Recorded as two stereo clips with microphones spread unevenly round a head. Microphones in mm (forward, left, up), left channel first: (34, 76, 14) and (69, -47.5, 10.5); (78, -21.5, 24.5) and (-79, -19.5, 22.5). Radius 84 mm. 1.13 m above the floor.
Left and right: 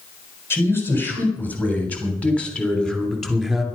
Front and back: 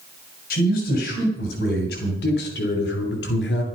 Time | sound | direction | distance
0.5 | a man speaking | 35° left | 4 m